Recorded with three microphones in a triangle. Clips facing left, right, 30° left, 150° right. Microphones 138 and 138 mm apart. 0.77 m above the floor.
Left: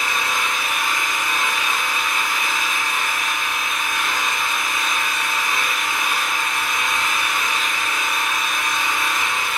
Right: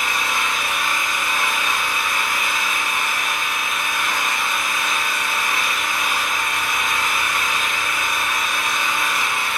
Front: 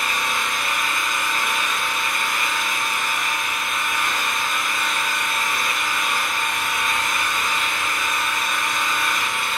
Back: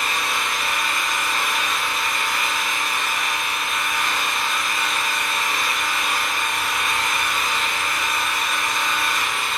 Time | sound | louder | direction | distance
0.0 | an engine running | even, even | 155° right | 1.9 m